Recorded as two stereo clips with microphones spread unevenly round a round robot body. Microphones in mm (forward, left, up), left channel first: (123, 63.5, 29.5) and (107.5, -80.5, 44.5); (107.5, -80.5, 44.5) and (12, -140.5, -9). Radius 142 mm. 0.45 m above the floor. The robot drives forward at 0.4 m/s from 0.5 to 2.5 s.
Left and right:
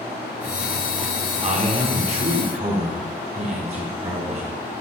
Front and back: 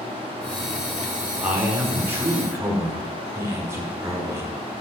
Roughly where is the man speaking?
Behind right.